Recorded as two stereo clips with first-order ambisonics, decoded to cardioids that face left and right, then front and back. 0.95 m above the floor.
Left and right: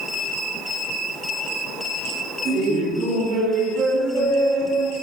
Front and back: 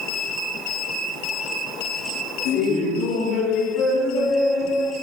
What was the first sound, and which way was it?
Laughter, 35° right.